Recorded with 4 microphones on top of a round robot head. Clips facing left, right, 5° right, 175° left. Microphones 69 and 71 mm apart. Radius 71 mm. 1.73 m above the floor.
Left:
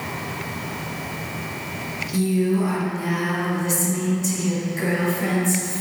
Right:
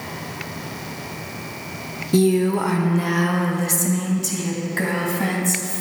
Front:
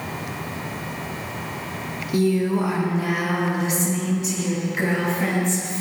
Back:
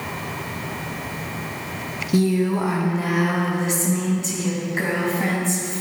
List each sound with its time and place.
2.1 s a woman speaking: 115° right, 0.9 m; by 5.8 s 120° right, 3.5 m